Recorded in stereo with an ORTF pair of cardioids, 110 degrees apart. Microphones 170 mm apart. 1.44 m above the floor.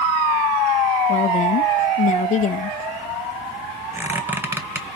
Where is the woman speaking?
45° left, 0.8 m.